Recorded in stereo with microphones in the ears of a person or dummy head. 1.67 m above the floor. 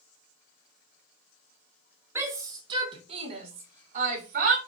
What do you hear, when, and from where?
2.1 s a shout: 15° right (ahead or behind), 1.1 m; by 4.6 s 50° right (ahead or behind), 1.9 m